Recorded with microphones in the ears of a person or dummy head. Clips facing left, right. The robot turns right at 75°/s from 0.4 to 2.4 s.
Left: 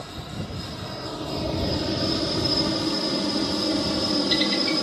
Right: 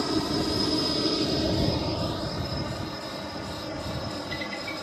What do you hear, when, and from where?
0.0 s a helicopter: 75° right (ahead or behind); by 4.8 s 55° left (ahead or behind)